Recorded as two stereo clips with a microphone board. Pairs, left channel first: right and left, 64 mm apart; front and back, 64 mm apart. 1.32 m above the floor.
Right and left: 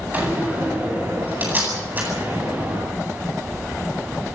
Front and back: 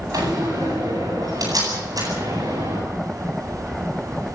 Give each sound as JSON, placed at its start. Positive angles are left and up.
{"t": 0.1, "sound": "a door slam", "azimuth_deg": 155, "distance_m": 9.0}